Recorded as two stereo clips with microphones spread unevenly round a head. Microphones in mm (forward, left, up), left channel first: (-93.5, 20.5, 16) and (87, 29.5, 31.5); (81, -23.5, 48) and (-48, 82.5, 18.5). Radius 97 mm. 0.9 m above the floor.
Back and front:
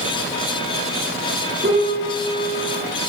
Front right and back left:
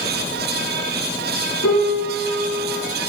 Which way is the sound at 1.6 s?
50° right.